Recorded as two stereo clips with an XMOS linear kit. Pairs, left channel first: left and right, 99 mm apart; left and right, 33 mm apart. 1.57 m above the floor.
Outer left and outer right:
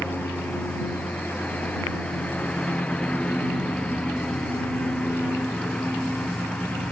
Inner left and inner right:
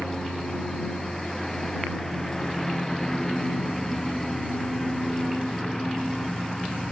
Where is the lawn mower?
15° left (ahead or behind); by 6.9 s 10° left (ahead or behind).